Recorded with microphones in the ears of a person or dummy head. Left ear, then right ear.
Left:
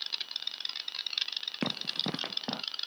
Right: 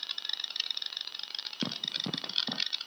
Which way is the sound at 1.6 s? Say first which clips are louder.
Left 1 dB; 30° left (ahead or behind).